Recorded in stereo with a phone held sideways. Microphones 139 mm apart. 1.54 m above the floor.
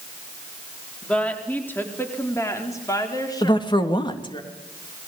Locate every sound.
1.0 s a woman speaking: 10° left (ahead or behind), 4 m; by 4.4 s 35° left (ahead or behind), 5 m
3.4 s a woman speaking: 35° left (ahead or behind), 3 m